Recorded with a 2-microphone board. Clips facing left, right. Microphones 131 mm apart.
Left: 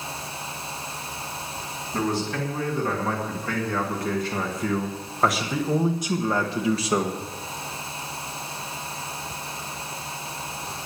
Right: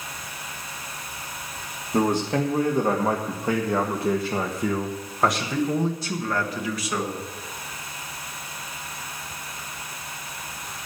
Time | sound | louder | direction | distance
1.9 | a man speaking | right 4 dB | 45° right (ahead or behind) | 2.5 m